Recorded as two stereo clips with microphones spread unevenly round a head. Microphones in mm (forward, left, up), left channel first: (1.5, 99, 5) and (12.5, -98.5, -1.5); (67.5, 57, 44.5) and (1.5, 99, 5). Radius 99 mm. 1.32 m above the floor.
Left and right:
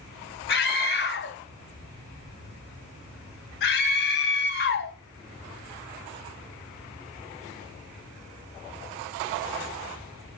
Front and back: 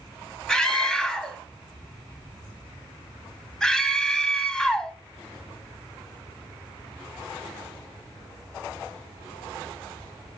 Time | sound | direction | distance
0.5 | a scream | 70° left | 1.4 m